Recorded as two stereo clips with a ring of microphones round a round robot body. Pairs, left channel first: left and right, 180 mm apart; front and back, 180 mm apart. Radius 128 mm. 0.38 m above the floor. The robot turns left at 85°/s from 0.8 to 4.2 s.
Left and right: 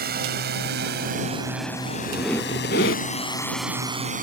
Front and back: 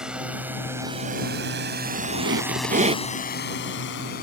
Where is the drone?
95° right; by 4.2 s 55° right.